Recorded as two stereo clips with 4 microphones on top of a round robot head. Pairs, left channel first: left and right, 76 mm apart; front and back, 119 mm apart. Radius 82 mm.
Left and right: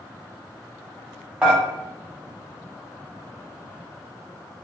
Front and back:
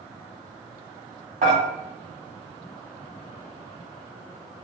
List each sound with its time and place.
1.4 s dishes clattering: 160° right, 1.2 m